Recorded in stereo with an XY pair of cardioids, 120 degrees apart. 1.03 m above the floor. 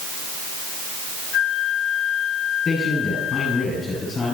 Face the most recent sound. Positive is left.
turn(degrees=30)